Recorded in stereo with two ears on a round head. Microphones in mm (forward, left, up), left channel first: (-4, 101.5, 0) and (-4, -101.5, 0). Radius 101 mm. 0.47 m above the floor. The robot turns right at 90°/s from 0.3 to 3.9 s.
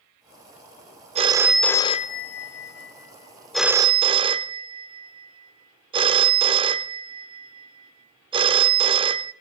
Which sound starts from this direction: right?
A phone ringing, at 1.1 s.